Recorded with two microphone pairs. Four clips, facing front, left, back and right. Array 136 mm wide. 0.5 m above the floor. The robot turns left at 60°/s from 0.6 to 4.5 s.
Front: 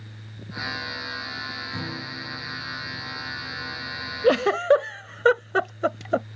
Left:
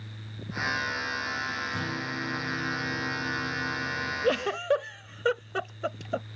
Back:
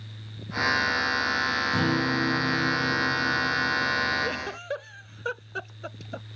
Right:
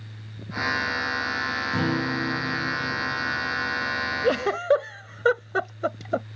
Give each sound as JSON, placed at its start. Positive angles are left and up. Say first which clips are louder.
{"t": 1.7, "sound": "a guitar", "louder": "right 8 dB, back 12 dB", "azimuth_deg": -120}
{"t": 4.2, "sound": "a giggle", "louder": "right 4 dB, front 14 dB", "azimuth_deg": -10}